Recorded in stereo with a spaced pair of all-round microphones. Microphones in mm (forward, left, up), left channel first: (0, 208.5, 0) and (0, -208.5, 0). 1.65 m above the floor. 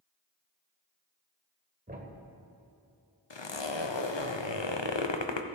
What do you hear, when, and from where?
1.9 s a thud: 20° right (ahead or behind), 1.4 m
3.3 s a zipper: 85° left, 0.9 m